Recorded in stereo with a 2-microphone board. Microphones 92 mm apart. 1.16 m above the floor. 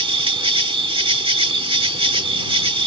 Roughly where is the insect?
Right.